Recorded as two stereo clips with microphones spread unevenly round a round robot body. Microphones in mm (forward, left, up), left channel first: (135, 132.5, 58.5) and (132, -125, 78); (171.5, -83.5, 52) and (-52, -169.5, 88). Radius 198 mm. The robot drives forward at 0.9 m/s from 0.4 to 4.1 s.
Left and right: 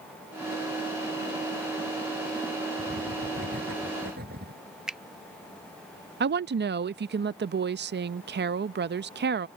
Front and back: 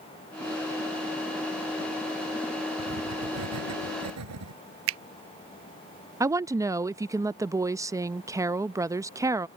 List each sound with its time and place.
2.8 s writing: 155° right
4.9 s a finger snap: straight behind
6.2 s a woman speaking: 75° right